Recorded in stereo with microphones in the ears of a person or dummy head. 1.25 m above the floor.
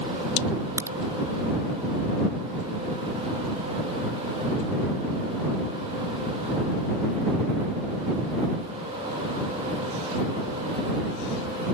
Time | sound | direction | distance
0.8 | a crack | 10° right (ahead or behind) | ?